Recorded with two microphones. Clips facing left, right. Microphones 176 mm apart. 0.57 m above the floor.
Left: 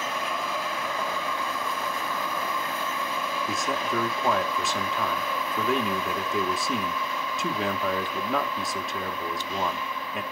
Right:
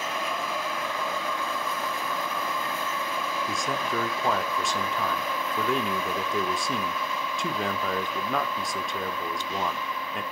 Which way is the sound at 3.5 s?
Centre (ahead or behind).